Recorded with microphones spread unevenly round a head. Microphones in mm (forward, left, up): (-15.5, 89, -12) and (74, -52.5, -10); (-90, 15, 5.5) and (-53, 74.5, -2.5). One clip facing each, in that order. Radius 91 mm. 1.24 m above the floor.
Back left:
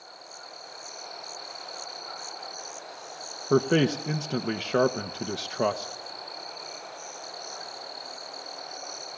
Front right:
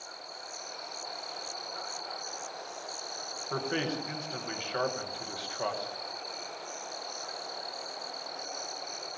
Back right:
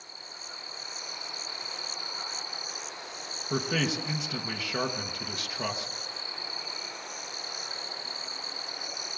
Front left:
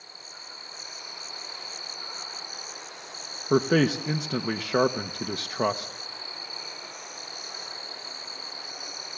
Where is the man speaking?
90° left, 1.2 m.